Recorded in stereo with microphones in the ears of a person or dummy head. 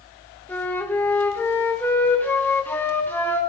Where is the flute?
10° left (ahead or behind), 0.9 m.